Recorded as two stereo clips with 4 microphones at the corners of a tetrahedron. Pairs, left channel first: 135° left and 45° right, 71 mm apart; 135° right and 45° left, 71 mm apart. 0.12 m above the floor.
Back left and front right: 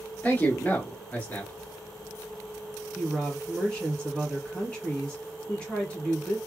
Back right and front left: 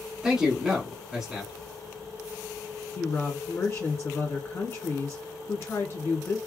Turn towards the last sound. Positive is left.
turn(degrees=-155)